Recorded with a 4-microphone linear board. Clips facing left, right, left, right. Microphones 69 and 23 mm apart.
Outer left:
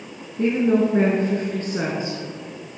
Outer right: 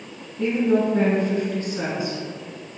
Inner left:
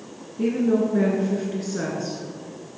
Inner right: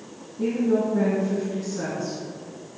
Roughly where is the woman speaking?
Left.